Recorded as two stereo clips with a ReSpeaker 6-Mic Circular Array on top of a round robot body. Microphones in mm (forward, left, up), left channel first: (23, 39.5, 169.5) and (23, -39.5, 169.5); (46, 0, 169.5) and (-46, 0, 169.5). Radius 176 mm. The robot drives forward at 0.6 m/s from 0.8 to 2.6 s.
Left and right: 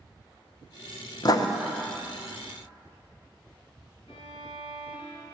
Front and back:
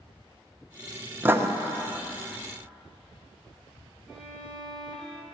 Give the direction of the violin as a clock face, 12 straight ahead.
9 o'clock.